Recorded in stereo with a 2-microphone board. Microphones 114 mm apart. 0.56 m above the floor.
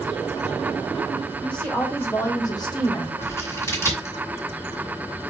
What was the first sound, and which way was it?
A woman speaking, 10° left (ahead or behind).